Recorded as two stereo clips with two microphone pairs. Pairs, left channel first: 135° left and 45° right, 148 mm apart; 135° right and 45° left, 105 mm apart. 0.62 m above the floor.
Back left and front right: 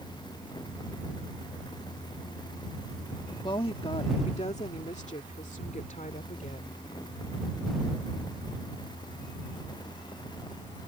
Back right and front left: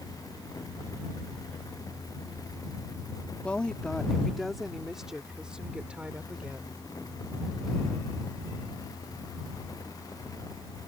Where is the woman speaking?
155° left; by 6.8 s 120° left.